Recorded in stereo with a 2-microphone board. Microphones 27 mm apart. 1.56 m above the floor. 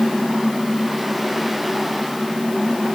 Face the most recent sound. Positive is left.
No sound to turn to.